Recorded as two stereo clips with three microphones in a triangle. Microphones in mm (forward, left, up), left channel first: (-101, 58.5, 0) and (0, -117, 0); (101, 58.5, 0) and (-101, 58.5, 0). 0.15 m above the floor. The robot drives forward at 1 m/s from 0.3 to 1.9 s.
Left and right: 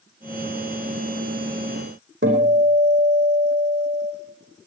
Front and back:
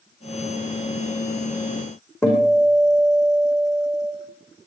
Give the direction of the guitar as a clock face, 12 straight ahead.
3 o'clock.